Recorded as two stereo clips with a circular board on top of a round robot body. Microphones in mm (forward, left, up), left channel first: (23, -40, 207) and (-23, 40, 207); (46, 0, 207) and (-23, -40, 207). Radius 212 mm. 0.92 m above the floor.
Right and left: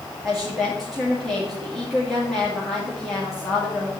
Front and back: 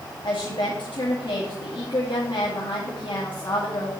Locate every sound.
0.2 s a woman speaking: 25° left, 2.5 m